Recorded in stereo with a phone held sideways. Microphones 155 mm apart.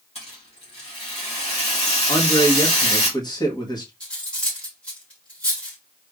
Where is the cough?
I don't hear a cough.